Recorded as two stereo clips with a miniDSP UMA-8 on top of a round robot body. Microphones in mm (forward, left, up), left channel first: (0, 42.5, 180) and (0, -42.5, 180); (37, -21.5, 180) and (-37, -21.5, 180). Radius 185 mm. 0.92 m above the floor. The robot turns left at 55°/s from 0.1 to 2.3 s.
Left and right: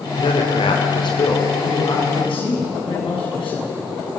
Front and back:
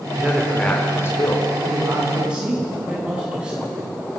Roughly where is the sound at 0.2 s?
Left.